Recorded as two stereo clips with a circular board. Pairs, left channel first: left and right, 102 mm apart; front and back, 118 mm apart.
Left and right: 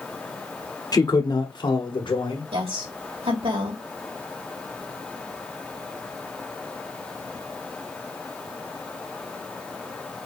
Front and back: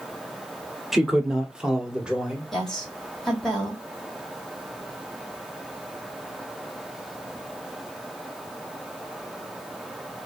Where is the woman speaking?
85° right, 3.5 m.